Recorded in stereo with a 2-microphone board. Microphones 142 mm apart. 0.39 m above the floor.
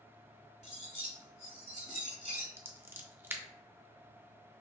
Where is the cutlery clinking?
50° right (ahead or behind), 1.3 m.